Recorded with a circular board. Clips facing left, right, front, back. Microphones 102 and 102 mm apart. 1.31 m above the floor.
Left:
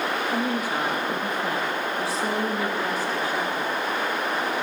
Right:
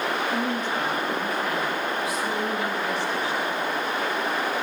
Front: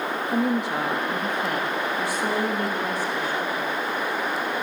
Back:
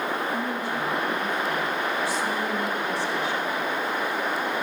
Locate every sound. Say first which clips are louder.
0.3 s a woman speaking: left 1 dB, front 4 dB; 5° left, 3 m; by 3.7 s 50° left, 4.5 m